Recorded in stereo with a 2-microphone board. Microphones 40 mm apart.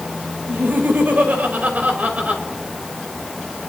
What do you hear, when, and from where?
0.5 s laughter: 60° right (ahead or behind), 4.5 m; by 2.4 s 35° right (ahead or behind), 5 m